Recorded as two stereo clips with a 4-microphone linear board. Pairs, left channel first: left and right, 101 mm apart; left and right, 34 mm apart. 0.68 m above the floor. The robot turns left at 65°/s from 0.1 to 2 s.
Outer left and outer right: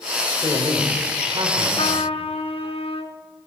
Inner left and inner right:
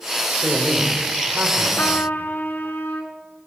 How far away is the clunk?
I don't hear a clunk.